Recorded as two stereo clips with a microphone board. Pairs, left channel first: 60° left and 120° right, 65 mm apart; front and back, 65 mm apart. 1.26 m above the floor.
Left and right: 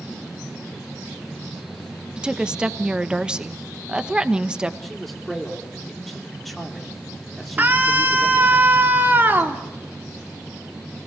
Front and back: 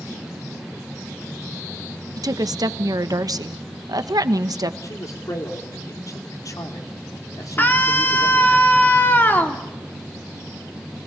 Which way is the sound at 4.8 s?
30° right.